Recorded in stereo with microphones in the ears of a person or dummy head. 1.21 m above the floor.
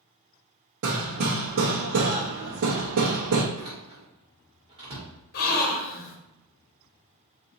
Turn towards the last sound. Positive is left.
turn(degrees=40)  # may be behind; listen again after turning